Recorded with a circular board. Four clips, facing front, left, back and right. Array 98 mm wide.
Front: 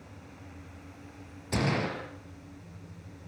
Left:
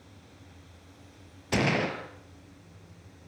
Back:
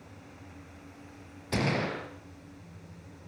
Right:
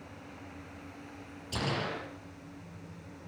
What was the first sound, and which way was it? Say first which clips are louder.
A gunshot: left 7 dB, even; 105° left.